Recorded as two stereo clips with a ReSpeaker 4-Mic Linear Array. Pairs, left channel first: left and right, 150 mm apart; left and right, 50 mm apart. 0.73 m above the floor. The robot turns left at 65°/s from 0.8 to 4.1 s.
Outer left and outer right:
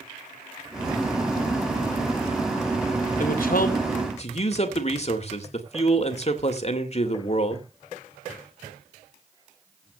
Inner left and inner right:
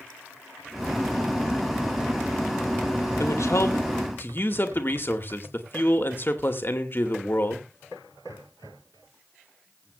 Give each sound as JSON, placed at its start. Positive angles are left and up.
{"t": 3.2, "sound": "a man speaking", "azimuth_deg": 110, "distance_m": 2.5}